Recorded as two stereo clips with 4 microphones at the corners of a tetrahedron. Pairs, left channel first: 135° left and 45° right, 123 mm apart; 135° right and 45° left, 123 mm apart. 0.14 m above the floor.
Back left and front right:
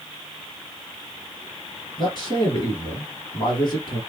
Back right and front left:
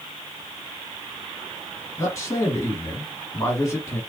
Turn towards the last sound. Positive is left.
turn(degrees=165)